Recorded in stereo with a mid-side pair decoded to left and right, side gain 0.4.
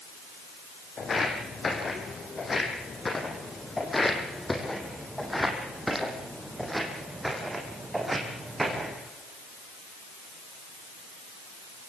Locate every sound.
1.0 s footsteps: 45° left, 5.5 m; by 9.0 s 25° right, 6 m